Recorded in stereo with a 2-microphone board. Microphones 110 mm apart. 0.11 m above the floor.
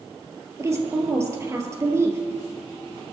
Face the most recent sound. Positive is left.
turn(degrees=-25)  # may be behind; listen again after turning